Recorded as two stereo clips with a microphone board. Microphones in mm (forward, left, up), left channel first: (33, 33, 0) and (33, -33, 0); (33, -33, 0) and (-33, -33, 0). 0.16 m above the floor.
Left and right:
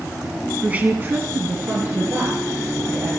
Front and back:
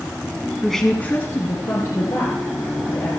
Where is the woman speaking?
95° right, 1.0 m; by 3.1 s 30° right, 4 m.